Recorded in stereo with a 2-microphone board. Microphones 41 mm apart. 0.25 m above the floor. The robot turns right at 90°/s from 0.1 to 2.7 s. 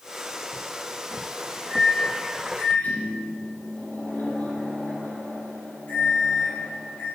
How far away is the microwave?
About 5.5 m.